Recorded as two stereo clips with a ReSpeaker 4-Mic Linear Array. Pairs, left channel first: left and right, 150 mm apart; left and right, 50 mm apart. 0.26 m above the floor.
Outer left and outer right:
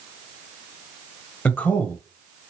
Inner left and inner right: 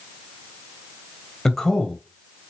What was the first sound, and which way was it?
A man speaking, 10° left (ahead or behind).